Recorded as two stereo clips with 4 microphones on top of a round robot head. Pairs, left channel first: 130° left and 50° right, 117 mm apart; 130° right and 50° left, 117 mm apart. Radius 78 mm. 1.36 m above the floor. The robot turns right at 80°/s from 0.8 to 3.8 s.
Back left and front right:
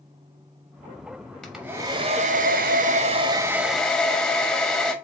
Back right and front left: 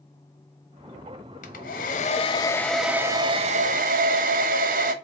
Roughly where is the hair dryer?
Behind right.